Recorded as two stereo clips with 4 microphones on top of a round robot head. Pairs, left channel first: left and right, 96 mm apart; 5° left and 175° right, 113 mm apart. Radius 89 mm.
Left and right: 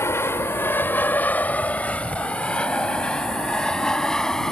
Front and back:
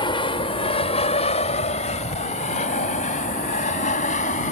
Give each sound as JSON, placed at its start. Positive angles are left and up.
{"t": 0.0, "sound": "an aircraft", "azimuth_deg": 35}